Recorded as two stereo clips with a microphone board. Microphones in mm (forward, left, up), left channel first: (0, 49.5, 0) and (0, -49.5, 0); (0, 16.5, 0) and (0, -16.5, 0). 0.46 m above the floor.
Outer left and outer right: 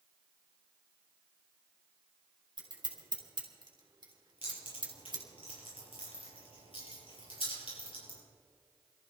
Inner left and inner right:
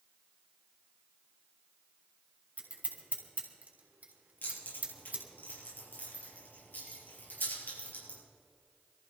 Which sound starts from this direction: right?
Scissors, at 2.6 s.